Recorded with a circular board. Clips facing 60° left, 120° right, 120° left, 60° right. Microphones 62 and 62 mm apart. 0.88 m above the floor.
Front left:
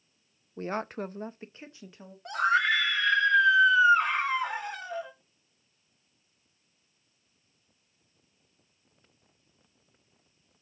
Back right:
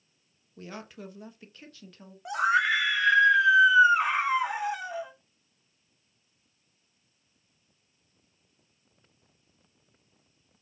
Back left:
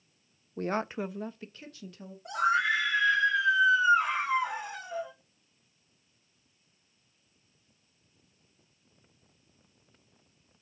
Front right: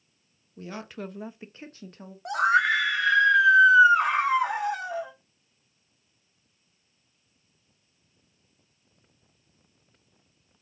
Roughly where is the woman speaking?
Left.